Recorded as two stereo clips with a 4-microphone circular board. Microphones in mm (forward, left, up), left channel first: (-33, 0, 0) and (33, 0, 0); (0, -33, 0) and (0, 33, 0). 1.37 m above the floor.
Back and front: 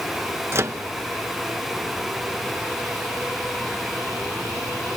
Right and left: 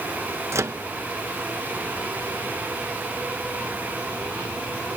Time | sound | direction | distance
0.5 | a microwave | 50° left | 0.9 m